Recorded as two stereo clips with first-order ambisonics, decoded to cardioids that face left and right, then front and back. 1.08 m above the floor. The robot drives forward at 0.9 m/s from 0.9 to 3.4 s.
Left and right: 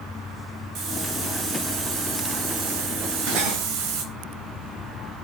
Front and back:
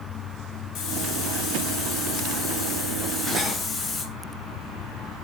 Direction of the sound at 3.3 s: 95° right.